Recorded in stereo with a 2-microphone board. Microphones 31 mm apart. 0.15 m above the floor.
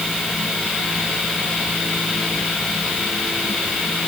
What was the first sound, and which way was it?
Only background noise.